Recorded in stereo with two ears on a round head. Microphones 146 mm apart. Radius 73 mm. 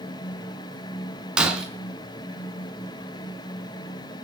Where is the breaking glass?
5° right (ahead or behind), 3.5 m.